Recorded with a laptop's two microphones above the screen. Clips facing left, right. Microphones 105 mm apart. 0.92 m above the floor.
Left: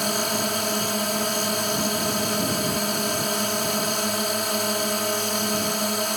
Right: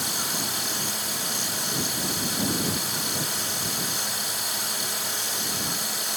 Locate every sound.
0.0 s a drone: 55° left (ahead or behind)